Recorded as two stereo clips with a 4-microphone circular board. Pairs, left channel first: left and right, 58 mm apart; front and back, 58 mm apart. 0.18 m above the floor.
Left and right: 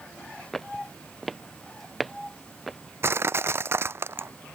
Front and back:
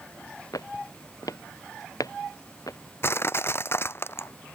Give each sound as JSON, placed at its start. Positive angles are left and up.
{"t": 0.5, "sound": "footsteps", "azimuth_deg": 5}
{"t": 3.0, "sound": "crushing", "azimuth_deg": -45}